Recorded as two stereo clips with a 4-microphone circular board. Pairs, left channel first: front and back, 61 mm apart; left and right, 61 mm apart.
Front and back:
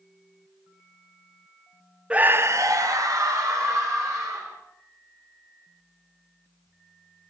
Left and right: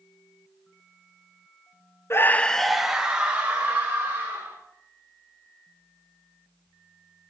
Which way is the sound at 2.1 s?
115° left.